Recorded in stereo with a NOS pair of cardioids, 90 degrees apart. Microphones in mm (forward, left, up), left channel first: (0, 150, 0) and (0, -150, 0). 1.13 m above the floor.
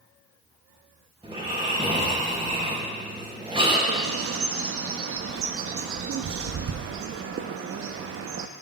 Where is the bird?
50° right, 0.8 m.